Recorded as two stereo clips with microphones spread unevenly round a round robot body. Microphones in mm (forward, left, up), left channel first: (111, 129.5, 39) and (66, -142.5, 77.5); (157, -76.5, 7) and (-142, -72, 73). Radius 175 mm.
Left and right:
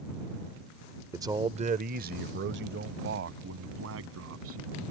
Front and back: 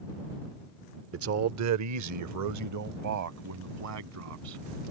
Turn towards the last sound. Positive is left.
turn(degrees=-145)